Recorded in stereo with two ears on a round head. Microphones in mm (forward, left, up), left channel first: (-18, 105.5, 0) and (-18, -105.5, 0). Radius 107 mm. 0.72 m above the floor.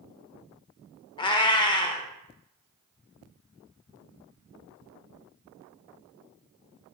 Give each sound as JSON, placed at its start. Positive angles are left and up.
{"t": 1.2, "sound": "a cat meowing", "side_deg": 20, "distance_m": 0.5}